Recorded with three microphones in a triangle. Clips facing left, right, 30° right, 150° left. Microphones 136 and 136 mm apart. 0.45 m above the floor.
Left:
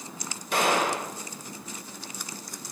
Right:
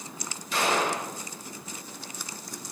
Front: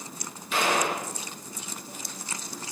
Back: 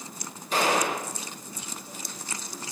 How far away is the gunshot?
About 0.8 m.